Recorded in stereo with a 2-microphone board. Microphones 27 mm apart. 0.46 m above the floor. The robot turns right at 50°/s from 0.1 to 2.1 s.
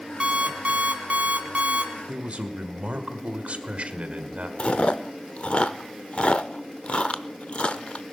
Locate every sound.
0.2 s an alarm clock: 140° right, 2.0 m; by 1.9 s 55° right, 2.0 m
2.1 s a man speaking: 55° right (ahead or behind), 1.4 m
4.6 s chewing: 50° left (ahead or behind), 0.6 m